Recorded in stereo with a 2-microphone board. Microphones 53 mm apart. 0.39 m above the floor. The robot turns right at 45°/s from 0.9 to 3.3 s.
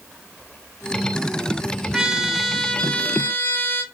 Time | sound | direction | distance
1.9 | a trumpet | 15° right | 0.7 m